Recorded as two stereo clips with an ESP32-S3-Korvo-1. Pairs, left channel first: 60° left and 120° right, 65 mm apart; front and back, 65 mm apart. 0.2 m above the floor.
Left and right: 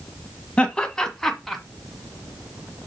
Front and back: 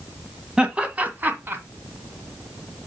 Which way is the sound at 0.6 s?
115° left.